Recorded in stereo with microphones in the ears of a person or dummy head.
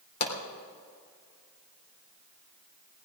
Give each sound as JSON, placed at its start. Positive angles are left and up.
{"t": 0.2, "sound": "a pop", "side_deg": 55, "distance_m": 3.0}